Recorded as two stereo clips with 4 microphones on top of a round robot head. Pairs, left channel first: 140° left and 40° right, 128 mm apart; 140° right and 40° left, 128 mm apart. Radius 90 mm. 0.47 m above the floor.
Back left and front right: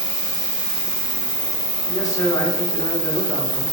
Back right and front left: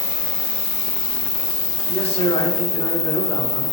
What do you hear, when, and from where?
0.0 s an insect: 115° right, 0.9 m
1.9 s a man speaking: 160° right, 1.1 m